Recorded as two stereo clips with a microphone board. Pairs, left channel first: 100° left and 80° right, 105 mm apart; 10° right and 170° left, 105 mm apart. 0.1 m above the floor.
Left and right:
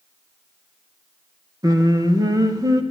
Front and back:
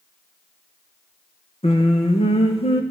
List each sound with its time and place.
1.6 s singing: 25° right, 3 m